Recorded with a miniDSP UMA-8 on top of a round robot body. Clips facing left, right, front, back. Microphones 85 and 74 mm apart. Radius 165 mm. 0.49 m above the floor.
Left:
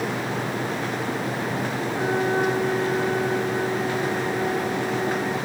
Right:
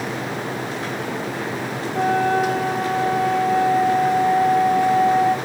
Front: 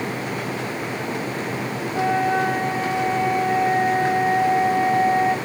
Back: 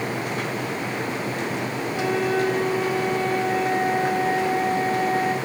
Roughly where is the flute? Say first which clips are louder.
Right 5 dB, front 3 dB; ahead right.